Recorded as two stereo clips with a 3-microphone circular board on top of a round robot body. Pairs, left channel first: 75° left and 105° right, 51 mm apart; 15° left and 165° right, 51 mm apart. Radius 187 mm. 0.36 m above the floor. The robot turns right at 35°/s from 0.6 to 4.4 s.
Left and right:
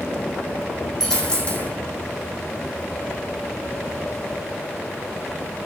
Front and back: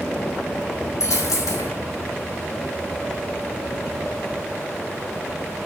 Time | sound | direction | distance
1.0 | a dropped coin | 10° right | 1.5 m